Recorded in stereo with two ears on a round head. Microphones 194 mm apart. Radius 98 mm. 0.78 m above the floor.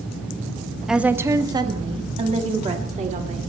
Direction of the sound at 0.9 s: Centre (ahead or behind).